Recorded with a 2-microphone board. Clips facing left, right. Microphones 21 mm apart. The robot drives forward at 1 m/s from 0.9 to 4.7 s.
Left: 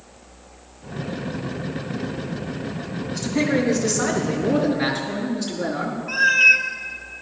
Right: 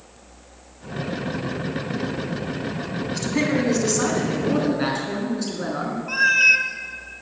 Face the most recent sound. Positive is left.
turn(degrees=-5)  # may be behind; listen again after turning